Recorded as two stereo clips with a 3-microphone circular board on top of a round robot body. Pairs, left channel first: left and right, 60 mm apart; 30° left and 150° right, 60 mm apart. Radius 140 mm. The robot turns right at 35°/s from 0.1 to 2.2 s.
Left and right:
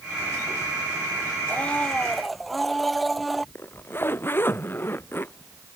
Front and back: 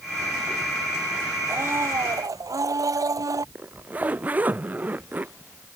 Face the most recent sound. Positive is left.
turn(degrees=145)